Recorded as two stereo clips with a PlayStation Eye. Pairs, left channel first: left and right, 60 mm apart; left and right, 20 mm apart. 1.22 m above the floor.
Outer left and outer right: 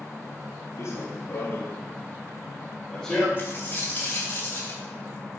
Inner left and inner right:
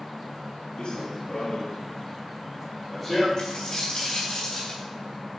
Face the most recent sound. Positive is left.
turn(degrees=35)  # may be behind; listen again after turning